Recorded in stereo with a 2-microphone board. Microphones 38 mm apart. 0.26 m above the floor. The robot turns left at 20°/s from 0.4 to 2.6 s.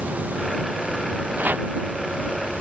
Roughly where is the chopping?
Right.